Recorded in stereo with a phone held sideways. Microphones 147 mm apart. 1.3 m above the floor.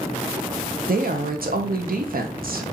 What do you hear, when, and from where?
0.9 s a woman speaking: 80° right, 0.6 m